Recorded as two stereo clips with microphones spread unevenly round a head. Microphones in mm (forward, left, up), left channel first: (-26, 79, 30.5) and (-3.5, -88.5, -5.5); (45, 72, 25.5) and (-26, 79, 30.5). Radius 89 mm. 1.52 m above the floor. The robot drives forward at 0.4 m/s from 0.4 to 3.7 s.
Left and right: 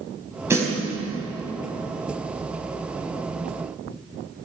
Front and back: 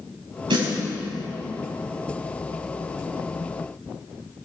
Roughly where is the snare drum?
Behind.